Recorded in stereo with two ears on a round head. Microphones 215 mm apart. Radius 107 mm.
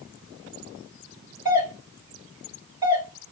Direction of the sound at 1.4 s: 20° right (ahead or behind).